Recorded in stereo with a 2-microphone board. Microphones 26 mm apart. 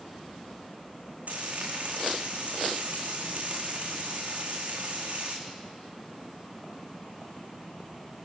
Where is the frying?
60° right (ahead or behind), 4.5 m.